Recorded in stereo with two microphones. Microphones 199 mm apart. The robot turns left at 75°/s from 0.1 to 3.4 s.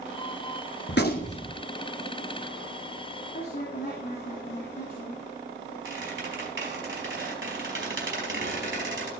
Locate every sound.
0.9 s a gunshot: 65° left, 1.4 m; by 1.5 s 20° left, 1.4 m
3.3 s a woman speaking: 55° left (ahead or behind), 3 m; by 5.2 s 50° left (ahead or behind), 3 m
5.8 s a squeak: 75° right (ahead or behind), 4 m